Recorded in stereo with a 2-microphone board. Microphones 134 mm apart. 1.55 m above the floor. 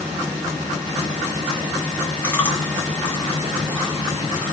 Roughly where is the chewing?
Centre.